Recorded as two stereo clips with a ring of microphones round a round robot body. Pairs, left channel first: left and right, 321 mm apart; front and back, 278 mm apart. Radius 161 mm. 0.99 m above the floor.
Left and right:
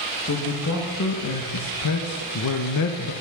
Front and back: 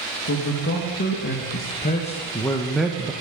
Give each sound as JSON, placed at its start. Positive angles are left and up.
{"t": 0.2, "sound": "a man speaking", "azimuth_deg": 40, "distance_m": 1.7}